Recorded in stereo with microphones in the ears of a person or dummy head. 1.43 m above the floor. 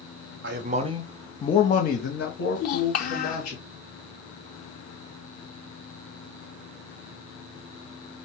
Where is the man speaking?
50° right (ahead or behind), 0.7 m; by 3.5 s 70° left (ahead or behind), 1.9 m.